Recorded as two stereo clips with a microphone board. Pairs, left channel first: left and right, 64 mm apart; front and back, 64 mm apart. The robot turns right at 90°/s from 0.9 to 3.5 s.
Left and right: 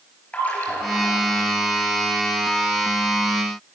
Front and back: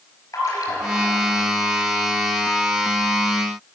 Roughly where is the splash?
Ahead left.